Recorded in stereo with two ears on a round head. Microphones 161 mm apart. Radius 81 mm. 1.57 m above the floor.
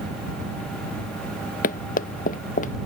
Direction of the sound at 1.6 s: 45° left (ahead or behind).